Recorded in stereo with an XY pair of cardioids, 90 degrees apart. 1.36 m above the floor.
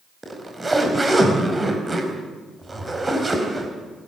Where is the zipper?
25° right, 4.5 m.